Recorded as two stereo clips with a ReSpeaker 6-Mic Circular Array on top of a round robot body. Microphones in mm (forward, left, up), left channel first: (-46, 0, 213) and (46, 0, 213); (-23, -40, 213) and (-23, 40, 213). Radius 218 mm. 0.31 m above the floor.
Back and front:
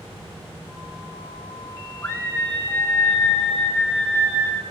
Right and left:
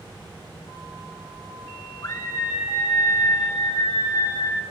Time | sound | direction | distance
2.0 | a scream | 115° right | 2 m